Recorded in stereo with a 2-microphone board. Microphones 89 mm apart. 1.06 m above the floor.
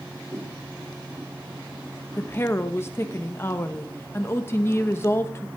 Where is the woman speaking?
25° left (ahead or behind), 0.8 m.